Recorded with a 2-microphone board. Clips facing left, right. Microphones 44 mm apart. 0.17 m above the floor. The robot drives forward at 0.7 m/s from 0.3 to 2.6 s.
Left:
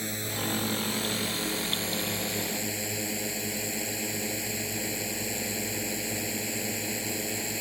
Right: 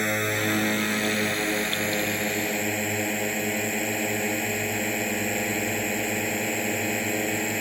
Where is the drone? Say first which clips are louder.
Right 9 dB; 55° right (ahead or behind); by 7.6 s 40° right (ahead or behind).